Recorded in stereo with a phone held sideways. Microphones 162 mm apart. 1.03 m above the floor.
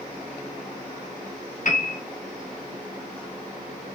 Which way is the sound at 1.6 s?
55° left (ahead or behind).